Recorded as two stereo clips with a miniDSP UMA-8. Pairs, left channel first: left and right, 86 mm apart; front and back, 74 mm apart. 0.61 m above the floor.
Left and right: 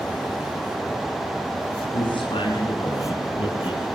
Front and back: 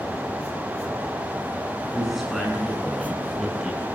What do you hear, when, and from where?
1.9 s a man speaking: 95° left, 6.5 m; by 3.8 s 90° left, 8 m